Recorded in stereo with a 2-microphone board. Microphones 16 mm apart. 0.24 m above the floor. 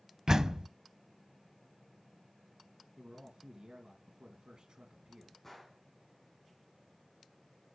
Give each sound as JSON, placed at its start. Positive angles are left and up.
{"t": 0.3, "sound": "a door slam", "side_deg": -40, "distance_m": 0.8}
{"t": 3.0, "sound": "a man speaking", "side_deg": -55, "distance_m": 2.5}
{"t": 5.4, "sound": "a gunshot", "side_deg": 15, "distance_m": 4.0}